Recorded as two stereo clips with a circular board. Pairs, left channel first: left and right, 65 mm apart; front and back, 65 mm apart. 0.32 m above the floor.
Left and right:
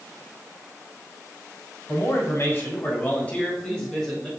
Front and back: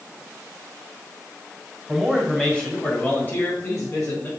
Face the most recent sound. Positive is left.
turn(degrees=0)